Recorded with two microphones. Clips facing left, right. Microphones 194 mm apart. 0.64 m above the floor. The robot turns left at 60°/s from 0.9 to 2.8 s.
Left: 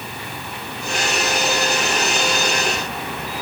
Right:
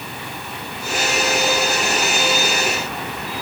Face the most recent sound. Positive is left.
No sound to turn to.